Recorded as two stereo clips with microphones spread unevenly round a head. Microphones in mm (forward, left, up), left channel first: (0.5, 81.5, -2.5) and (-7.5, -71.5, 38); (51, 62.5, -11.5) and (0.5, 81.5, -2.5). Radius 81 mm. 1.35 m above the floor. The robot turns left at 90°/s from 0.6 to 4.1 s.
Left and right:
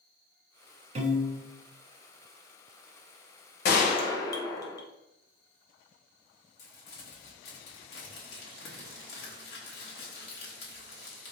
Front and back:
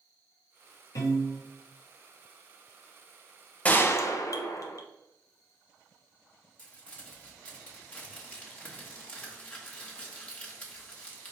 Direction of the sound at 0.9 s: 60° right.